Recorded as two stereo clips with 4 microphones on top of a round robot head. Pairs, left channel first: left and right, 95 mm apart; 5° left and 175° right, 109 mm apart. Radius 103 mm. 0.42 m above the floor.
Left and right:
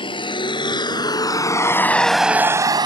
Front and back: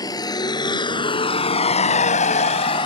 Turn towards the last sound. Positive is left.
turn(degrees=-50)